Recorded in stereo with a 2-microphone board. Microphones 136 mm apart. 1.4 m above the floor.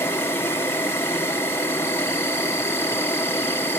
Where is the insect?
20° left (ahead or behind), 1.1 m.